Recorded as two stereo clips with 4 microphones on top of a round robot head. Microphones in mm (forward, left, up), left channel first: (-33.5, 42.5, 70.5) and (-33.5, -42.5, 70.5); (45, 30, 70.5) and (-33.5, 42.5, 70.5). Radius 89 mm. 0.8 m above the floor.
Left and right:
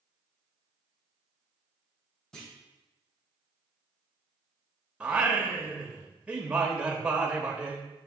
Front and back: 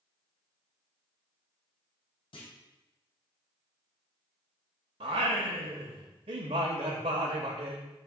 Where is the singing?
165° right, 0.8 m.